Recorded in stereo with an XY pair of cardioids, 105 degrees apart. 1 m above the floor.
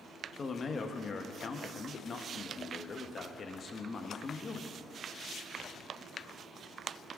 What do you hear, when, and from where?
0.4 s a man speaking: 40° left, 1.0 m